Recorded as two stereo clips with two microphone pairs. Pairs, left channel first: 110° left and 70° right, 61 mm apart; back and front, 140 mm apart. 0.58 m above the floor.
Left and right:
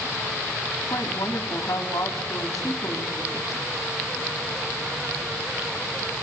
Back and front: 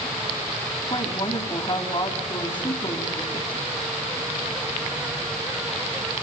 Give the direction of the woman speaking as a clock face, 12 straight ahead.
8 o'clock.